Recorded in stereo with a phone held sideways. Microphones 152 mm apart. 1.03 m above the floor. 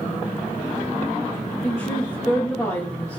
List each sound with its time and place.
1.6 s a woman speaking: 25° left (ahead or behind), 2 m